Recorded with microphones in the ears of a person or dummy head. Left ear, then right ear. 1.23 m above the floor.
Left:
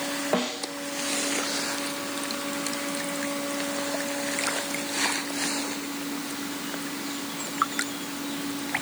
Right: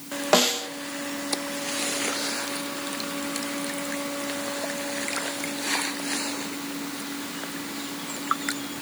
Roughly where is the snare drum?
Right.